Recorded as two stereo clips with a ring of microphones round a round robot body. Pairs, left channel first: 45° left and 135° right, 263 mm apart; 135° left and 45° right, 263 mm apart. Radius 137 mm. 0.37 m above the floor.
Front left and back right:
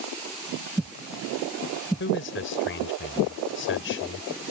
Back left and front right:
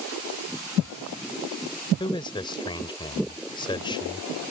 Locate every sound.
2.0 s a man speaking: 65° left